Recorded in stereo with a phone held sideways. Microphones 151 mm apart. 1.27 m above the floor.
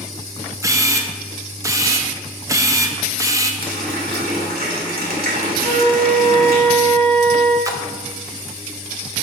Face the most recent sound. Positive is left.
turn(degrees=-20)  # may be behind; listen again after turning